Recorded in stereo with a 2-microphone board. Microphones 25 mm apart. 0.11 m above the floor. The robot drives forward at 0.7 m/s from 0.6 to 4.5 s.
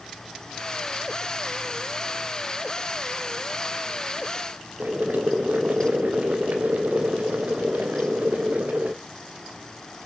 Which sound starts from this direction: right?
Boiling, at 4.8 s.